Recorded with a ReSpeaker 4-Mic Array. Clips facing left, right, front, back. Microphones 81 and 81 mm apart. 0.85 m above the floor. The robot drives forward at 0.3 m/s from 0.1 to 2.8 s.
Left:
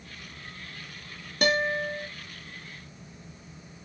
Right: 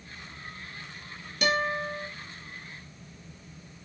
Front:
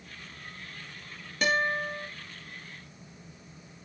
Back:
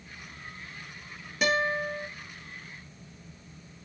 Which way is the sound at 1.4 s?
95° left.